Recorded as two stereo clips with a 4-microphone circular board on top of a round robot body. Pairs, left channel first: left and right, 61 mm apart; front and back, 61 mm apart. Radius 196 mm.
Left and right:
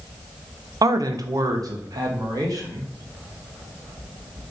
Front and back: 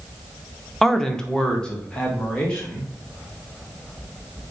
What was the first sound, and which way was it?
A man speaking, 85° right.